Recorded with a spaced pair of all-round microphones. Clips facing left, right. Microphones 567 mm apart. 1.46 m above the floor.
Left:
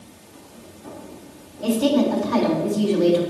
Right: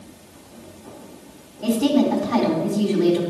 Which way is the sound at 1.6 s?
10° right (ahead or behind).